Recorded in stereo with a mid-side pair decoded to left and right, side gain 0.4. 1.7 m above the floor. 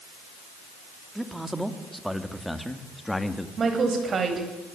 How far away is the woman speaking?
About 9.5 m.